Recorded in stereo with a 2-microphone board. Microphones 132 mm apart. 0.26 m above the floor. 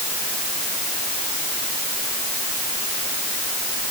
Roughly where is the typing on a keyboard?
I don't hear typing on a keyboard.